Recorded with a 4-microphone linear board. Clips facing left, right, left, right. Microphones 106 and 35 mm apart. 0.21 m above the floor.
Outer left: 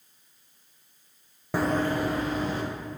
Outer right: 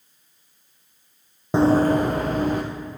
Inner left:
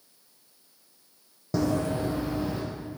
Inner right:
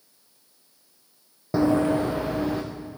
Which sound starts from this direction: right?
Running footsteps, at 1.5 s.